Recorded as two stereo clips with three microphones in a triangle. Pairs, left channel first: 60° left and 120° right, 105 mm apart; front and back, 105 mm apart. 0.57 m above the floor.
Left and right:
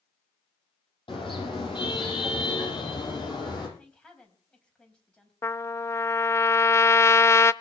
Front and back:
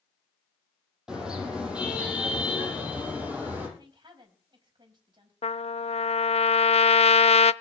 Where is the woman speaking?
140° left, 4 m.